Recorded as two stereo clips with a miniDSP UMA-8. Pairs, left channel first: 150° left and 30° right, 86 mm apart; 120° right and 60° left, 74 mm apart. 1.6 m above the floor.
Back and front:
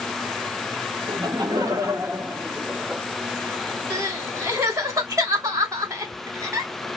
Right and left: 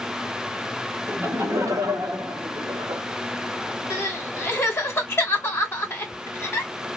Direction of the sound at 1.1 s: Straight ahead.